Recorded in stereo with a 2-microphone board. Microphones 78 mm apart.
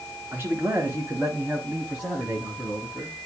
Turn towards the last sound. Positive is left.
turn(degrees=-10)  # may be behind; listen again after turning